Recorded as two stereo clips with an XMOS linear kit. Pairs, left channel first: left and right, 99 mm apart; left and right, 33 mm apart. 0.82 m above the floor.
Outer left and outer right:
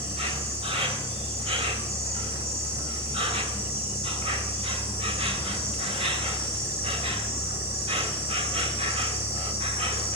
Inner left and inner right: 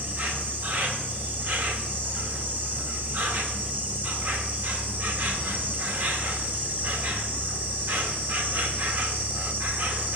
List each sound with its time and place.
0.0 s an insect: 80° right, 1.6 m